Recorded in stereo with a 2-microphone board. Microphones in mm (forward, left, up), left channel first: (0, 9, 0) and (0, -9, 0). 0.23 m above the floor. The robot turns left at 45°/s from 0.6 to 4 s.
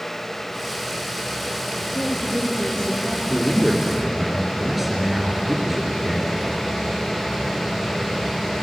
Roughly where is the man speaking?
Ahead left.